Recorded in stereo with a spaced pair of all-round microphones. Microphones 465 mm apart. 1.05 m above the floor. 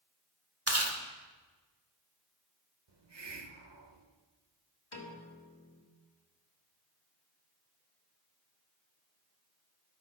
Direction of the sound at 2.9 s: 65° right (ahead or behind).